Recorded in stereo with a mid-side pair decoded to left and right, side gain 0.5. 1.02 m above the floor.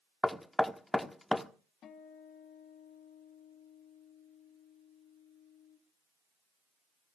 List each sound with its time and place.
0.2 s knocking: 10° left, 1.2 m
1.8 s a guitar: 60° left, 3 m